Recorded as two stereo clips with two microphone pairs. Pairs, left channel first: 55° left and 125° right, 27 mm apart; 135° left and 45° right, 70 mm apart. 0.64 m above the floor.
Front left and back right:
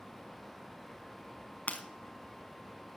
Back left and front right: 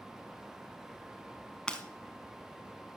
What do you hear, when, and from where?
1.7 s breaking glass: 55° left, 1.3 m